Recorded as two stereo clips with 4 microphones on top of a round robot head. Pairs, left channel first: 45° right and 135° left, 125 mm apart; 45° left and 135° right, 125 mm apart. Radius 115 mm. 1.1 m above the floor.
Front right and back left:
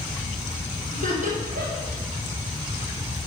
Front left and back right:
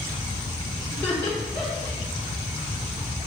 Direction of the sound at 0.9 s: 125° left.